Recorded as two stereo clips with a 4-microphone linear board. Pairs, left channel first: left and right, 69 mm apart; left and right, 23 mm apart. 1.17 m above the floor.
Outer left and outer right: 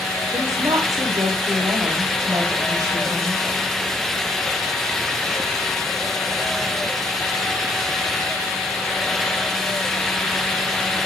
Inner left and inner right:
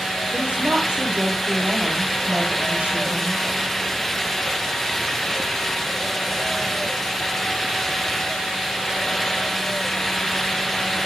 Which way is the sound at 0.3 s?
60° right (ahead or behind).